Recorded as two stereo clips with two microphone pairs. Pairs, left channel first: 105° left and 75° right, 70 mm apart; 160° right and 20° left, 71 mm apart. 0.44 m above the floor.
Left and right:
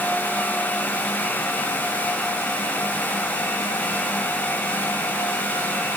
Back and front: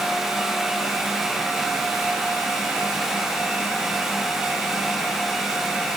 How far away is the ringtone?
I don't hear a ringtone.